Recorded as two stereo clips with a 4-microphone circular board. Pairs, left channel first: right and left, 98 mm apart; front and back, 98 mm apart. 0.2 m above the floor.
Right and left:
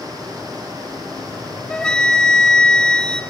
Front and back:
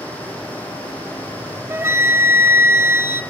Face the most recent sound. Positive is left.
turn(degrees=-160)